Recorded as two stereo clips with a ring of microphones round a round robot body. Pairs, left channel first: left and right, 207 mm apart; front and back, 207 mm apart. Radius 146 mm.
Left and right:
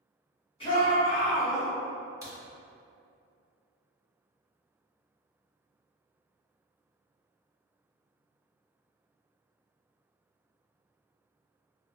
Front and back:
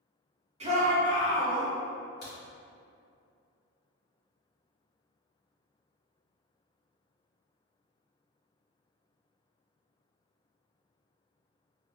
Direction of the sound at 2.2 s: 20° right.